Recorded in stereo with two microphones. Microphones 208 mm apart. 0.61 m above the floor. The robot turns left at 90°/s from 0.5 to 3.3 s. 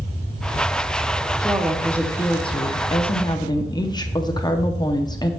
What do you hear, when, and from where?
1.4 s a woman speaking: 15° right (ahead or behind), 0.7 m; by 5.3 s 20° left (ahead or behind), 0.7 m